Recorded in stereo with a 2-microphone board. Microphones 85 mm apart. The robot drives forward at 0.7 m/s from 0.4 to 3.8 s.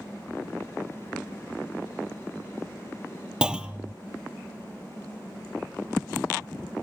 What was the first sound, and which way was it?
A clunk, 10° right (ahead or behind).